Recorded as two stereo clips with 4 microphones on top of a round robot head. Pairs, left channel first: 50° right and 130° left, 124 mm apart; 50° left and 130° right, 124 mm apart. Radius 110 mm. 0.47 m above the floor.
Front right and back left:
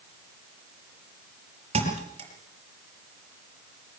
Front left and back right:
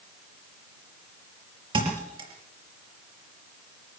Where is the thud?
175° left, 5 m.